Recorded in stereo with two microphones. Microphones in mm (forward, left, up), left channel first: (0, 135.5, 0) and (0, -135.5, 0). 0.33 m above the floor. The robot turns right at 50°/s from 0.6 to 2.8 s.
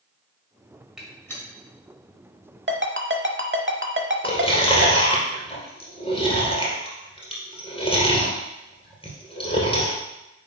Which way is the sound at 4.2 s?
20° left (ahead or behind).